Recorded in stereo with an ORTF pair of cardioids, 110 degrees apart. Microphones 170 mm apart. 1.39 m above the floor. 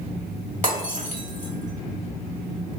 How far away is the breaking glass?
About 2.0 m.